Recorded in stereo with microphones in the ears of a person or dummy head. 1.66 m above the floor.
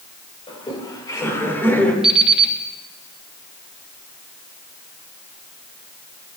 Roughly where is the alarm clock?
Centre.